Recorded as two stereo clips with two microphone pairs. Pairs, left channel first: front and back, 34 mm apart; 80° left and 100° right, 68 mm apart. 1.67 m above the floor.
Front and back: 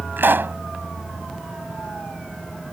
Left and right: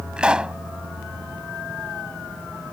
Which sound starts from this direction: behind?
A pop, at 0.2 s.